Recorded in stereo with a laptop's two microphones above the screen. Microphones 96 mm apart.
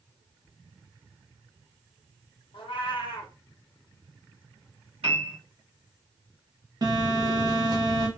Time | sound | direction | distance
2.5 | a cat meowing | 60° left (ahead or behind) | 0.7 m
5.0 | a piano | 75° right (ahead or behind) | 1.3 m
6.8 | a phone buzzing | 45° right (ahead or behind) | 0.9 m